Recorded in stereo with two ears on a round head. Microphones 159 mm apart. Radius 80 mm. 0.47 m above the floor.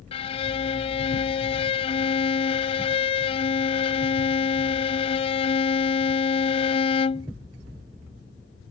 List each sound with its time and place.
0.1 s a violin: 35° left (ahead or behind)